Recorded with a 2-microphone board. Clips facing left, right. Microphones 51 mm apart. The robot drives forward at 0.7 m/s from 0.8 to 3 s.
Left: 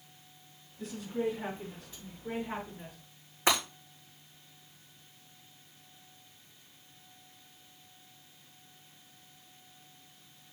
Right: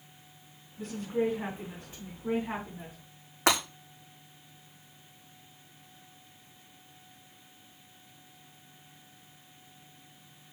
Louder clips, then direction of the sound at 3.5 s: Right 2 dB; 70° right (ahead or behind).